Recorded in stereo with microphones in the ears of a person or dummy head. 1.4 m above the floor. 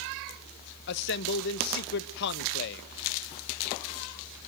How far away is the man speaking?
About 1.1 m.